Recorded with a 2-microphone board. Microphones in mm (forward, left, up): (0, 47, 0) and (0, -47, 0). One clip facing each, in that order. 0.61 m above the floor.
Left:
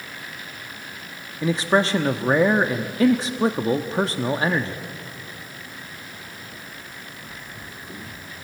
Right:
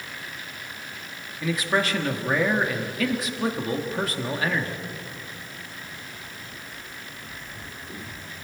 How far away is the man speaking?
About 0.8 m.